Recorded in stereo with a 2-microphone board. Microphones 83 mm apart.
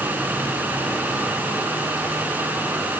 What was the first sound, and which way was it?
Only background noise.